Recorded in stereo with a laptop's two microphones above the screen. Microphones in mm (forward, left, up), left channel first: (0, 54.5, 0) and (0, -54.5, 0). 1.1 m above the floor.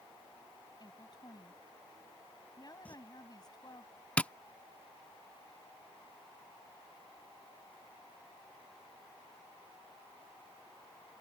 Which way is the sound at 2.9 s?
15° left (ahead or behind).